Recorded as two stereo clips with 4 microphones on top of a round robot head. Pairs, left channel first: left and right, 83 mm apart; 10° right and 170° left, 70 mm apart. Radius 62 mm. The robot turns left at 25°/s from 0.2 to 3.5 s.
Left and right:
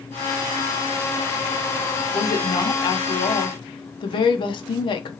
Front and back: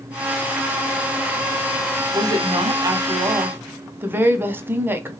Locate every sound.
2.1 s a woman speaking: 145° left, 0.7 m; by 5.1 s 110° left, 0.7 m